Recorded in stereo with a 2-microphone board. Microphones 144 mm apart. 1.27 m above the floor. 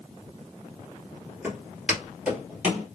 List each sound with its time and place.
1.4 s footsteps: 10° right (ahead or behind), 1.4 m; by 2.9 s 5° right (ahead or behind), 1.9 m